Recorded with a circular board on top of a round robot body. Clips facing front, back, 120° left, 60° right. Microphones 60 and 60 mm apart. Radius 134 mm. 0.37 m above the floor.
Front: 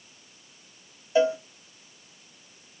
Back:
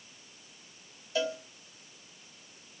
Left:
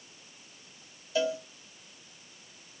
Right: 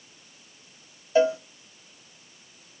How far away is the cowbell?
About 1.5 m.